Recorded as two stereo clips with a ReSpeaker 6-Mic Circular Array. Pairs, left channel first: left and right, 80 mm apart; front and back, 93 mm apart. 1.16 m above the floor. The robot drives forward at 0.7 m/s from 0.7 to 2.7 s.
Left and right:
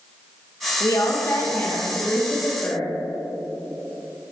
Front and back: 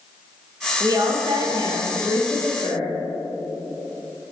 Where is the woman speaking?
130° left, 0.7 m; by 2.9 s 165° left, 1.8 m.